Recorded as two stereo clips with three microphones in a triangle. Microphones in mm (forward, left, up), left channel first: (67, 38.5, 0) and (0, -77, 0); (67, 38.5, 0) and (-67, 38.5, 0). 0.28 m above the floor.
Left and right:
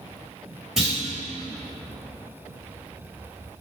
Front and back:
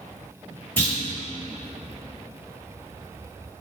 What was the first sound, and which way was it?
A clunk, 40° right.